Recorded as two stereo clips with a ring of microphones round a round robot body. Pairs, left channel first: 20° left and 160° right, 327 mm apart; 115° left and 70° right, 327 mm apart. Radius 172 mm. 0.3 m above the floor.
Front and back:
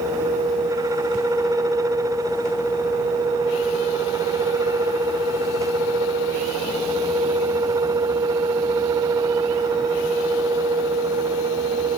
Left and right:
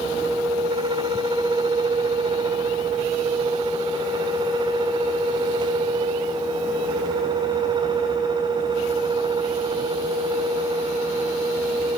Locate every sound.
Only background noise.